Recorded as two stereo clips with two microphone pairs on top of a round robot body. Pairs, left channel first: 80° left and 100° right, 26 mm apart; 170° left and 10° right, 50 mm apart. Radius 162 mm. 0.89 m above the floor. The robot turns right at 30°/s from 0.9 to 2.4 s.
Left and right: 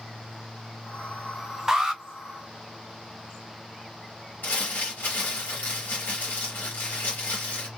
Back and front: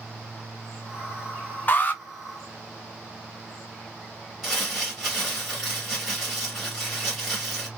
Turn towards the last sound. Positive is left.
turn(degrees=80)